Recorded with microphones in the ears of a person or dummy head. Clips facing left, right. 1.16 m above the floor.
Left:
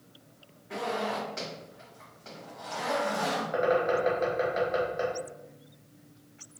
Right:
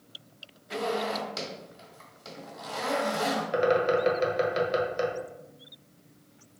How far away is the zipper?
About 1.6 m.